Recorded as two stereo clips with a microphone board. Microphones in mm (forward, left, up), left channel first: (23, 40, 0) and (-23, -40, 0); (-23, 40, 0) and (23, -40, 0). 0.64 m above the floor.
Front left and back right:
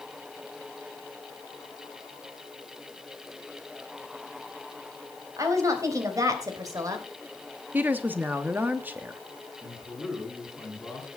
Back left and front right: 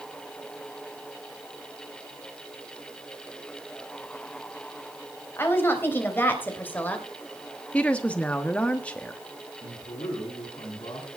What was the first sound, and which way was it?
A woman speaking, 175° right.